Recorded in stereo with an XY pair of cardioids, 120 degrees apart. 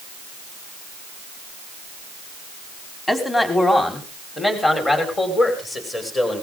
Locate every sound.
3.1 s a man speaking: 20° left, 4.5 m; by 6.4 s 30° left, 6.5 m